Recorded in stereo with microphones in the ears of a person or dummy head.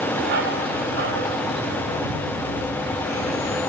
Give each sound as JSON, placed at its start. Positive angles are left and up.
{"t": 0.2, "sound": "a dog barking", "side_deg": -55, "distance_m": 1.2}